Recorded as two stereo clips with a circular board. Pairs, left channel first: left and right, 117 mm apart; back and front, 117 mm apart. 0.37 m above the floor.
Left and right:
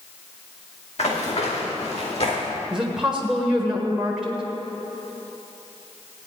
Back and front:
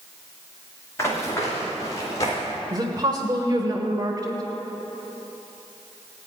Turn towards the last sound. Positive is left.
turn(degrees=-10)